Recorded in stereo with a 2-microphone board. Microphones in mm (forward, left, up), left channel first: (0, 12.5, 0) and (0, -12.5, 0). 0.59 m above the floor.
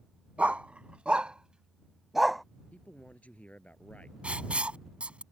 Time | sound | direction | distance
0.4 | a dog barking | 70° right (ahead or behind) | ?
2.7 | a man speaking | 85° left | ?
4.2 | writing | 55° right (ahead or behind) | ?